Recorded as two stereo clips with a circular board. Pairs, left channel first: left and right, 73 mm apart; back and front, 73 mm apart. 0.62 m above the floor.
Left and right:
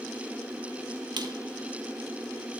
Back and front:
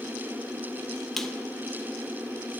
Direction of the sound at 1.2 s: 90° right.